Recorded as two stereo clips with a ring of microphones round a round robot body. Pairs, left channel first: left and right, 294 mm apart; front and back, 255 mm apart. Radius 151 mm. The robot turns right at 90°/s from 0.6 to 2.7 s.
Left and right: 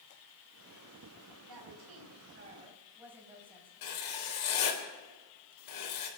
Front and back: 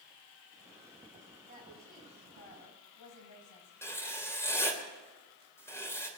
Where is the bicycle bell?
No bicycle bell in this recording.